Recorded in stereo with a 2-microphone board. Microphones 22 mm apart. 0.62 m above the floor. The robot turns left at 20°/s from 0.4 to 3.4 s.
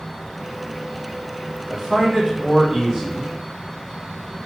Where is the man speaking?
15° right, 1.3 m; by 3.4 s 50° right, 1.3 m.